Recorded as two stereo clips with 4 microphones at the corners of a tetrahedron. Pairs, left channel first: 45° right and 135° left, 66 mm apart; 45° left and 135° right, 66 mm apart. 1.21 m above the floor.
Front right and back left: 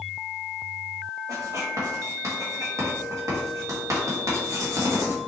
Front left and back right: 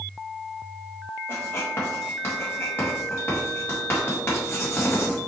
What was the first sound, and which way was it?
Writing, 100° left.